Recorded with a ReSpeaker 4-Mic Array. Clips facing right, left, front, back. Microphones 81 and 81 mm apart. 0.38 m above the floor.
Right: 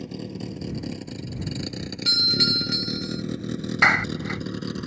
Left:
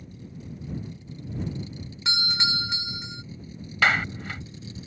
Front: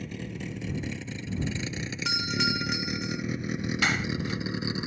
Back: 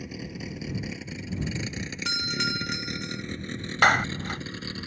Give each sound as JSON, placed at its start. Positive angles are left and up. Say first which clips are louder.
{"t": 0.0, "sound": "a vehicle", "louder": "right 10 dB, even", "azimuth_deg": -95}
{"t": 2.0, "sound": "a doorbell", "louder": "right 2 dB, front 2 dB", "azimuth_deg": 85}
{"t": 3.8, "sound": "a clap", "louder": "right 2 dB, back 10 dB", "azimuth_deg": -160}